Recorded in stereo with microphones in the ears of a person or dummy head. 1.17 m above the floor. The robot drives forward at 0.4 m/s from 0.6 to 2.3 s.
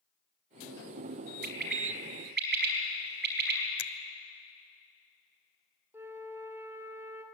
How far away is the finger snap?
About 0.6 m.